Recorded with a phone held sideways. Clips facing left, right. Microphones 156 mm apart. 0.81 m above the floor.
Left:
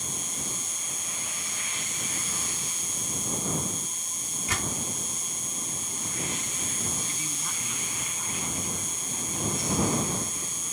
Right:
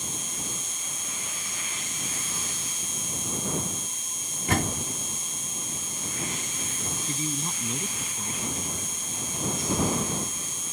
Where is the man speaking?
35° right (ahead or behind).